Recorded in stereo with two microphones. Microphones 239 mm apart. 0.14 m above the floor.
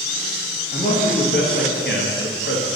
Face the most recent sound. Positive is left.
turn(degrees=55)  # may be behind; listen again after turning